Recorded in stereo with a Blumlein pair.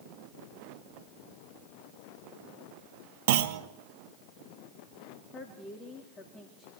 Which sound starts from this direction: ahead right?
A clunk, at 3.3 s.